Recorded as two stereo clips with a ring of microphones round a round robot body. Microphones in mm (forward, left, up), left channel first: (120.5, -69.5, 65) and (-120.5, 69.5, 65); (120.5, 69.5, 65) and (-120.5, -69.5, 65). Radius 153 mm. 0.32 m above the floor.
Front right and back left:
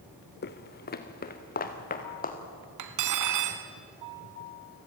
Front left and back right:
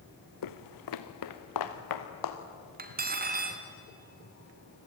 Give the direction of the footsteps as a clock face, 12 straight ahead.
11 o'clock.